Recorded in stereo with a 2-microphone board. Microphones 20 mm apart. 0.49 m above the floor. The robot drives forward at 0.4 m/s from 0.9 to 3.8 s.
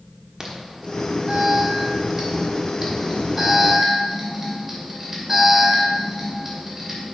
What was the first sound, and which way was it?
An alarm, 25° right (ahead or behind).